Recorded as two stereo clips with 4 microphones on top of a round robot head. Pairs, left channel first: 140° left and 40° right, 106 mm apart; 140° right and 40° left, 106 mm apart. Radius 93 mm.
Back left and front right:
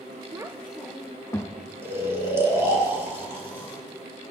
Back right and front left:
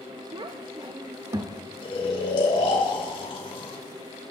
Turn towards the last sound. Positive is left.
turn(degrees=-105)